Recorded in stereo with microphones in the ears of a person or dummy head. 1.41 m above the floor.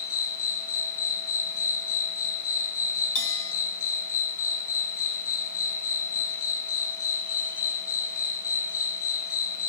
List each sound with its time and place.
0.0 s an insect: 20° left (ahead or behind), 2.0 m
3.1 s a bell: 45° left (ahead or behind), 4 m